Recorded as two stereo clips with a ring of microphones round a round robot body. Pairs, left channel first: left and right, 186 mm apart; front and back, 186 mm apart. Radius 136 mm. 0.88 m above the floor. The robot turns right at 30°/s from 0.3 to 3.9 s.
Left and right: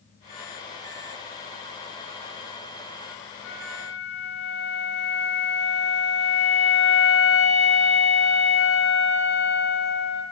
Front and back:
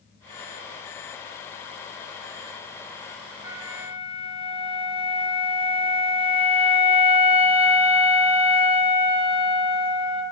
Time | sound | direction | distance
3.4 | a flute | 105° left | 4.5 m